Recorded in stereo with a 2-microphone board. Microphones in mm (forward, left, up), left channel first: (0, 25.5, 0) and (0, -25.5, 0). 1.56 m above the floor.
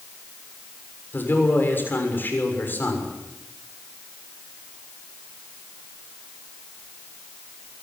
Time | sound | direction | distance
1.1 | a man speaking | 40° left (ahead or behind) | 6.5 m